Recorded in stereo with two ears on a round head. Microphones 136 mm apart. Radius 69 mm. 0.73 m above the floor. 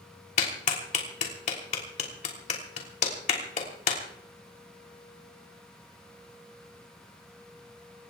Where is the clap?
45° left (ahead or behind), 3 m.